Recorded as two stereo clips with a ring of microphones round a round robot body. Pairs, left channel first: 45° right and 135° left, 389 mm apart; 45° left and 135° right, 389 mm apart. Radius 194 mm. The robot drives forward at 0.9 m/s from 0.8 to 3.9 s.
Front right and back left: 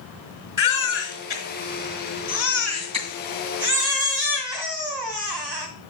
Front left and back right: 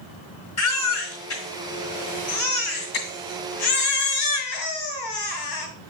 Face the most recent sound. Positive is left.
turn(degrees=80)